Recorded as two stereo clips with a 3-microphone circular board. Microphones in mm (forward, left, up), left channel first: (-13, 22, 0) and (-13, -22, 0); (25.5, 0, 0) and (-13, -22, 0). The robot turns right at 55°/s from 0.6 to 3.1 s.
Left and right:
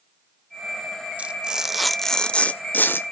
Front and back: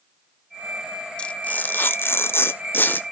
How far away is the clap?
No clap in this recording.